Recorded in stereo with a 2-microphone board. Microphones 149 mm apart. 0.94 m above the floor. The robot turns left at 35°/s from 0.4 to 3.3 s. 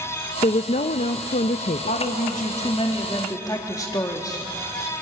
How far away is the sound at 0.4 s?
About 0.5 m.